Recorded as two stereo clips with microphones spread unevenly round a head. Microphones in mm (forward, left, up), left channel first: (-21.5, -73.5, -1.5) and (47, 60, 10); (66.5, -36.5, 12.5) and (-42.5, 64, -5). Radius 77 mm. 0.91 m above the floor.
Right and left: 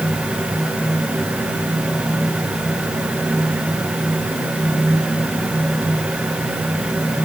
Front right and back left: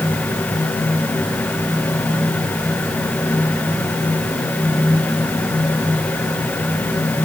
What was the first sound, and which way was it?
Only background noise.